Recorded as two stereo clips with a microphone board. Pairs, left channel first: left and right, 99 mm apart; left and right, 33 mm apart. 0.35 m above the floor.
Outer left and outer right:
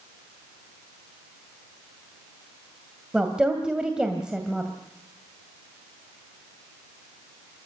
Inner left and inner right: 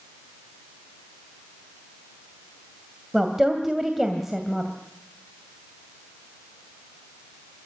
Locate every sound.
3.1 s a woman speaking: 10° right (ahead or behind), 2.5 m